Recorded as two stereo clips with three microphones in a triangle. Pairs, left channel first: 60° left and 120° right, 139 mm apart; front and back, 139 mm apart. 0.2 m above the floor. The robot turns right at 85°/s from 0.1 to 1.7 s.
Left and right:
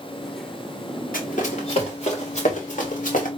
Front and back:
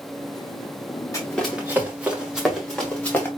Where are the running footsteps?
65° left, 1.8 m; by 3.3 s 75° left, 1.8 m.